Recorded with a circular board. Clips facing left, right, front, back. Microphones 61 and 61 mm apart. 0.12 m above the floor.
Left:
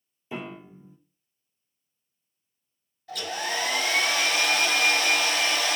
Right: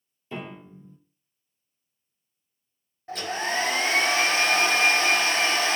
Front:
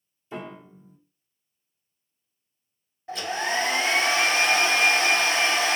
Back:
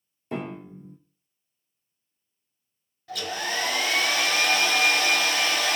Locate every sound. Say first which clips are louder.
0.3 s a piano: left 1 dB, back 4 dB; 170° left, 0.5 m
3.1 s a hair dryer: right 2 dB, front 3 dB; 45° right, 0.5 m